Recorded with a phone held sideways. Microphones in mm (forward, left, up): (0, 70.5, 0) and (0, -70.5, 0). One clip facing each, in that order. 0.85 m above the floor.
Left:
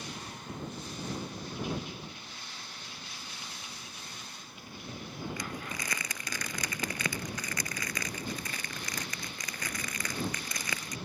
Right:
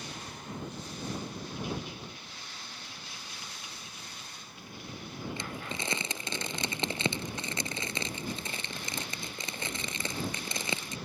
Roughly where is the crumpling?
Right.